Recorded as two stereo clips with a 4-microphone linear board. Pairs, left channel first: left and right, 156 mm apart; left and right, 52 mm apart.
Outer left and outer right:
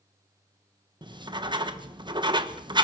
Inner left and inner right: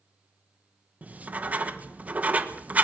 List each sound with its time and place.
1.0 s writing: 30° right (ahead or behind), 1.3 m